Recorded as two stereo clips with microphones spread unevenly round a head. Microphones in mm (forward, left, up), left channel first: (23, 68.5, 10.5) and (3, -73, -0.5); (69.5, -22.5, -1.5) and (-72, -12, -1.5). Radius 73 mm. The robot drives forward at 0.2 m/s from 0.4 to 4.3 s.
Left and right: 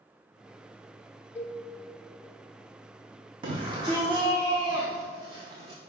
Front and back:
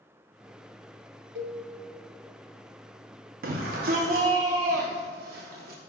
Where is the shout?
160° right, 0.8 m.